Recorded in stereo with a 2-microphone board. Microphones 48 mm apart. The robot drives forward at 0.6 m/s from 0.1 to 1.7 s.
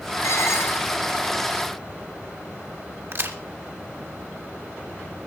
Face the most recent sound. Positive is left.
turn(degrees=-60)  # may be behind; listen again after turning